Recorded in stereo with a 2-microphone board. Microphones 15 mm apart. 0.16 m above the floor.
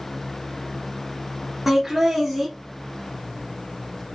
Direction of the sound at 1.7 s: 10° right (ahead or behind).